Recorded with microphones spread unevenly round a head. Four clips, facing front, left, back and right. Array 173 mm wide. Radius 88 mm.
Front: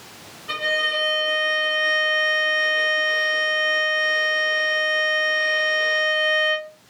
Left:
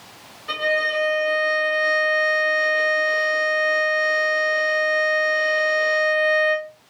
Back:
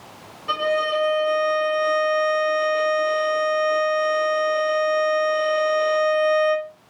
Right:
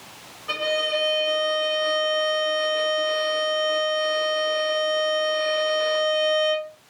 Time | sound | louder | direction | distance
0.5 | a violin | left 2 dB, back 4 dB | 170° left | 1.9 m